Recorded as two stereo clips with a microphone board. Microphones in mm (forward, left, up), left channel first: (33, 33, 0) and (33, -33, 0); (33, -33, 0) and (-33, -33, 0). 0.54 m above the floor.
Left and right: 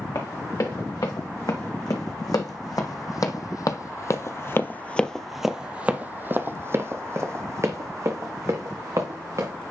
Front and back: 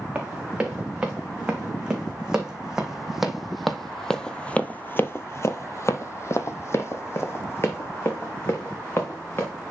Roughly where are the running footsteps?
Left.